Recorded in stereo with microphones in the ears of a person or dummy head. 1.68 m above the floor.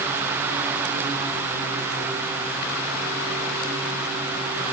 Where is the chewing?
I don't hear chewing.